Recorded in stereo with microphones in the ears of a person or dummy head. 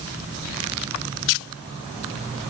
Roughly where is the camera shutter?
I don't hear a camera shutter.